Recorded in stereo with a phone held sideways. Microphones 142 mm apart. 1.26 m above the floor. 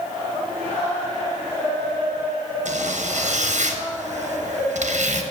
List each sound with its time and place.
2.6 s a zipper: 65° right (ahead or behind), 1.0 m